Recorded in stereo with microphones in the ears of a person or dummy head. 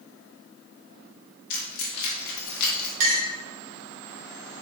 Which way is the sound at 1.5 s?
55° left (ahead or behind).